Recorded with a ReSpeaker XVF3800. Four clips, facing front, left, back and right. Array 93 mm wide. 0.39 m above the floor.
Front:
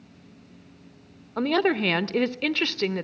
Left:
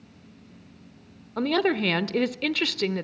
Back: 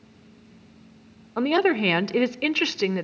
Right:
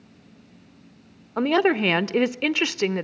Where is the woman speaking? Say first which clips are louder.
Right 4 dB, back 2 dB; 115° right, 0.8 m.